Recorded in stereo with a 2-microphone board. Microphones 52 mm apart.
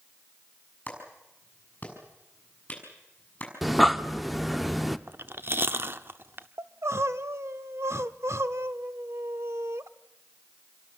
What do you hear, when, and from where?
0.9 s a clap: 30° left (ahead or behind), 6.5 m
3.6 s breathing: centre (ahead or behind), 0.8 m
5.1 s chewing: 50° right (ahead or behind), 0.9 m
6.6 s crying: 60° right (ahead or behind), 0.9 m